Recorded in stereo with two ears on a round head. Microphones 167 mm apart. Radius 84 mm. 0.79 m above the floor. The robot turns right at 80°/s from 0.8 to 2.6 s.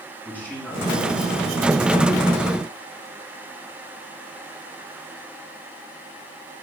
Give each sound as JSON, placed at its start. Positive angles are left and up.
{"t": 0.2, "sound": "a man speaking", "azimuth_deg": 170, "distance_m": 7.0}